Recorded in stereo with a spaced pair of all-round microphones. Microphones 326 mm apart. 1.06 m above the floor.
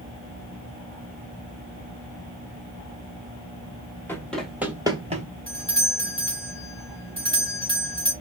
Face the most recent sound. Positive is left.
turn(degrees=20)  # may be behind; listen again after turning